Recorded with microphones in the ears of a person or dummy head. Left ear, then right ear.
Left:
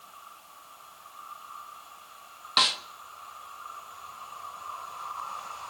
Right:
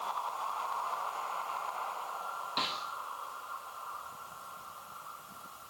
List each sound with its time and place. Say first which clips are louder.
2.6 s a snare drum: left 11 dB; 55° left (ahead or behind), 1.4 m